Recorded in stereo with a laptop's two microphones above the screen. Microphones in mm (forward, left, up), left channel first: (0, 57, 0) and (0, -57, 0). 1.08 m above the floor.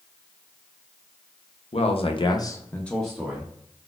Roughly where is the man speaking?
Left.